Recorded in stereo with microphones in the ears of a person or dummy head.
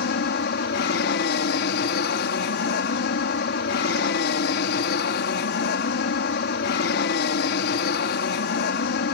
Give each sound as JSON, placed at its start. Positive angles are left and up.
{"t": 0.0, "sound": "an aircraft", "side_deg": 60}